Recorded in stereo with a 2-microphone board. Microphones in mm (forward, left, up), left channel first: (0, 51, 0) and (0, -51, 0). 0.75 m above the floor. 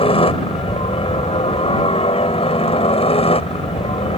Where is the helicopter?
65° left (ahead or behind); by 4.2 s 70° left (ahead or behind).